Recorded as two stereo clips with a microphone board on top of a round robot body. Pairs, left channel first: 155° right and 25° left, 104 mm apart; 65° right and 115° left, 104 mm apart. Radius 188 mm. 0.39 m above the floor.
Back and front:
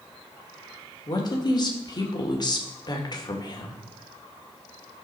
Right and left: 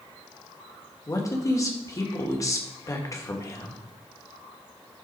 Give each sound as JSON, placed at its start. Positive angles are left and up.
{"t": 1.1, "sound": "a man speaking", "azimuth_deg": -120, "distance_m": 2.0}